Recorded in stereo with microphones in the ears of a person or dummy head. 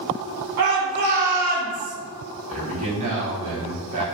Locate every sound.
0.6 s a shout: 55° right (ahead or behind), 1.5 m; by 1.9 s 25° right (ahead or behind), 0.7 m
2.5 s a man speaking: 35° right (ahead or behind), 0.9 m